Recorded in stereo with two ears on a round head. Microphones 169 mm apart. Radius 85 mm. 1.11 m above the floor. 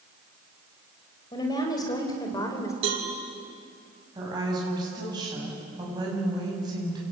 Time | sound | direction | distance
1.3 | a woman speaking | 25° left (ahead or behind) | 5 m
2.8 | a cowbell | 75° right (ahead or behind) | 5.5 m
4.2 | a woman speaking | 20° right (ahead or behind) | 8.5 m